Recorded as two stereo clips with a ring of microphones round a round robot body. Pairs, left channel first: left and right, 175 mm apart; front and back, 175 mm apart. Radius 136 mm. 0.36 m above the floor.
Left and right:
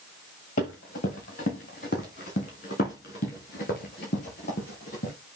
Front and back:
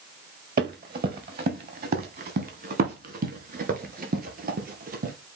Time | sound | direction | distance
0.6 | running footsteps | 150° left | 2 m